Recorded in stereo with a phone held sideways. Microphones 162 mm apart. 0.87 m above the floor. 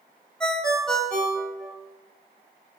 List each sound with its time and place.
0.4 s a ringtone: 5° left (ahead or behind), 1.4 m